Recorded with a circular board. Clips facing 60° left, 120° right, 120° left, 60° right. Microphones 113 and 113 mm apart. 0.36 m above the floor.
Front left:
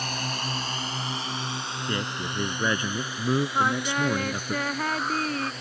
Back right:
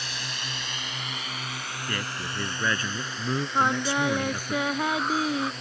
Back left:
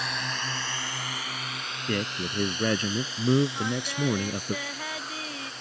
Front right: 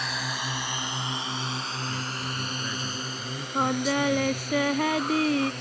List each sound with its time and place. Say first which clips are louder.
0.0 s a drone: front left 6 dB, front right 1 dB; 30° left; by 5.6 s 30° right
1.9 s a man speaking: front left 3 dB, back left 3 dB; 130° left
3.5 s singing: back right 1 dB, front right 5 dB; 40° right